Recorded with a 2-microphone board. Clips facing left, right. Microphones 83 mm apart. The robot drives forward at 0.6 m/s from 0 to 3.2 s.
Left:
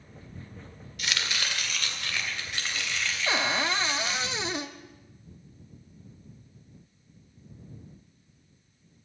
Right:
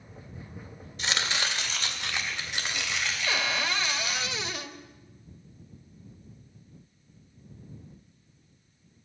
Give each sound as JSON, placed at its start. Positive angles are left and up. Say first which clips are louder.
{"t": 1.0, "sound": "chopping", "louder": "right 2 dB", "side_deg": -30, "distance_m": 1.5}
{"t": 3.3, "sound": "a cupboard door", "louder": "left 3 dB", "side_deg": 25, "distance_m": 0.6}